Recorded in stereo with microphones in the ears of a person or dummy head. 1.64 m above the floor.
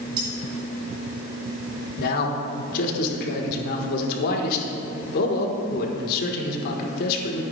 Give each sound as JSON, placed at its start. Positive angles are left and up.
{"t": 0.2, "sound": "cutlery clinking", "side_deg": -35, "distance_m": 3.5}
{"t": 2.0, "sound": "a man speaking", "side_deg": 65, "distance_m": 1.3}